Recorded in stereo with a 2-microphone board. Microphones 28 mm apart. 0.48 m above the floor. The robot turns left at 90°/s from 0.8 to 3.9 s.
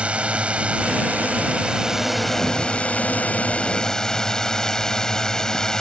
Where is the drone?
55° right; by 5.8 s 25° left.